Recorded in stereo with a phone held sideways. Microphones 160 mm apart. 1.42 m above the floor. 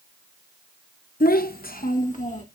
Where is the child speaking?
70° left (ahead or behind), 1.1 m; by 2.4 s 50° left (ahead or behind), 1.6 m.